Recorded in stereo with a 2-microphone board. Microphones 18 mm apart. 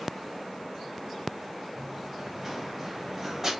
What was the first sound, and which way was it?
Running footsteps, 15° right (ahead or behind).